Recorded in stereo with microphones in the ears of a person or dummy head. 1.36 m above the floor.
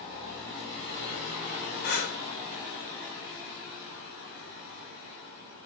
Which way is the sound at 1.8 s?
60° left (ahead or behind).